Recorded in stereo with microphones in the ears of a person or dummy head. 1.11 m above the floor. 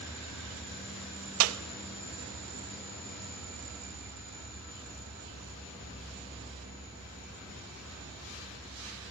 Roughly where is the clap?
Right.